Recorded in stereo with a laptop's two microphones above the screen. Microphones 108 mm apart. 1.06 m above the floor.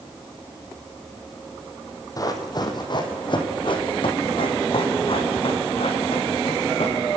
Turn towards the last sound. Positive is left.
turn(degrees=70)  # may be behind; listen again after turning